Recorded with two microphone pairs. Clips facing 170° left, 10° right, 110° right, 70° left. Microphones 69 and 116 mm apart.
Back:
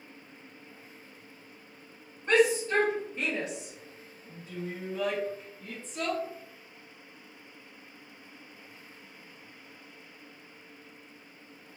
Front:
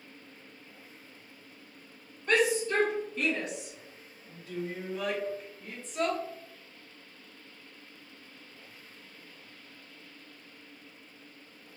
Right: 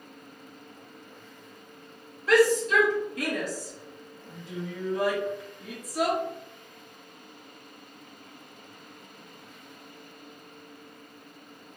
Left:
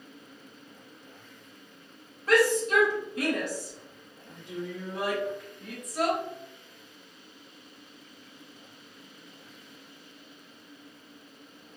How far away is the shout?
About 2.0 m.